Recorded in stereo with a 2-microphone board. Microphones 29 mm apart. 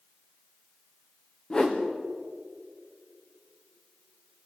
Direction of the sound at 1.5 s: 15° left (ahead or behind).